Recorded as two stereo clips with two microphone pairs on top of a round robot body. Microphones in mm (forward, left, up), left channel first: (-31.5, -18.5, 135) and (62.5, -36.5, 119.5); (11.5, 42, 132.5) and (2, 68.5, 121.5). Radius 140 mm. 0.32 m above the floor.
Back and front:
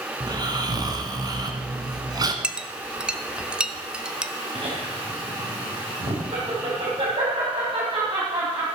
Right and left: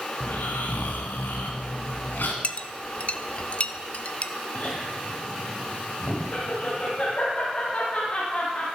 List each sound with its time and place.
0.2 s snoring: 60° right, 1.4 m
2.4 s a clink: 40° right, 0.9 m
4.5 s laughter: 25° right, 3 m